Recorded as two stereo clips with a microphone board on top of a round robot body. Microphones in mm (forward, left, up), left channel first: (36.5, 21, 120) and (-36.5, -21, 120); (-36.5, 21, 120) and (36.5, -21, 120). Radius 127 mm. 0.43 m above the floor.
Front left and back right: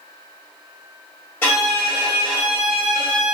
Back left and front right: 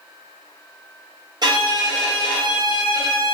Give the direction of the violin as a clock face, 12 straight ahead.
1 o'clock.